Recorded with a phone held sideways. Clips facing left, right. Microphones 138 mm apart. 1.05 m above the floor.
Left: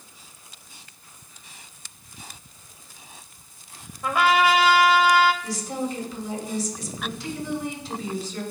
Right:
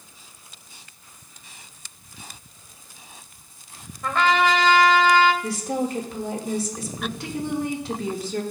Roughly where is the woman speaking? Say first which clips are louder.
Right 3 dB; right.